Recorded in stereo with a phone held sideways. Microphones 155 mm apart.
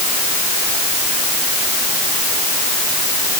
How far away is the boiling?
No boiling in this recording.